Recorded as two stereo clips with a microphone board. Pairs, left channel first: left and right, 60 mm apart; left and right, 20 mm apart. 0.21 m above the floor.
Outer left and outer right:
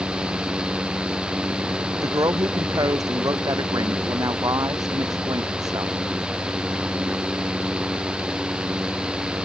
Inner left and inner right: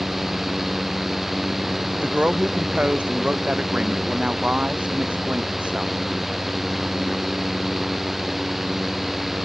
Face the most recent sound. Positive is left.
turn(degrees=-80)